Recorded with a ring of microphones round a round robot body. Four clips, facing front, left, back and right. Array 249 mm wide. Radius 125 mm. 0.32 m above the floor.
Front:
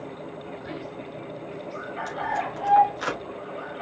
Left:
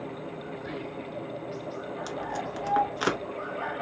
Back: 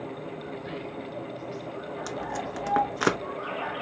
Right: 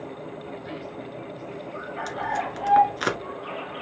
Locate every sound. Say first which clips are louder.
0.6 s whispering: even, even; 50° left, 1.1 m
2.1 s tape being pulled: right 7 dB, front 6 dB; 165° right, 1.0 m